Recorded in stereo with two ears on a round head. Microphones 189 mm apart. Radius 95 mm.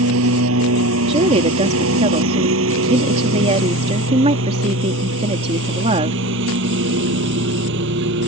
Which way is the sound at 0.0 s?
70° right (ahead or behind).